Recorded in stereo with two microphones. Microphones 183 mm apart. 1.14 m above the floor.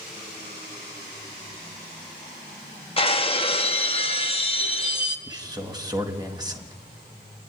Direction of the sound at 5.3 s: 20° right (ahead or behind).